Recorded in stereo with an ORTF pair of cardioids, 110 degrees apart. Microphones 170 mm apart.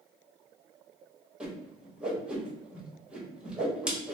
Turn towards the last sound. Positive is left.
turn(degrees=-5)